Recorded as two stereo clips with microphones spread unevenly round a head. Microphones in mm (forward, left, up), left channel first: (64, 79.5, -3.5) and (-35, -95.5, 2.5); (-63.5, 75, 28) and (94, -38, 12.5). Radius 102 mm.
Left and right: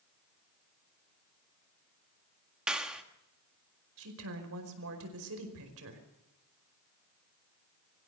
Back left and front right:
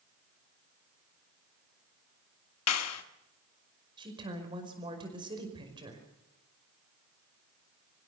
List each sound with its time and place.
2.7 s a clap: 155° left, 1.7 m
4.0 s a woman speaking: 105° right, 5 m